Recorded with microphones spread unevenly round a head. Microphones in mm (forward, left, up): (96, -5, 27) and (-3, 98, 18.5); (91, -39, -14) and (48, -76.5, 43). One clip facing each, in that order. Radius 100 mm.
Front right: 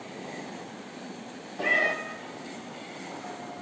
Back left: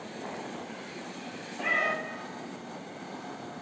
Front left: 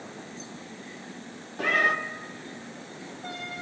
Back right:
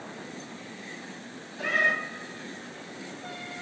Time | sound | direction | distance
1.6 | a cat meowing | straight ahead | 1.0 m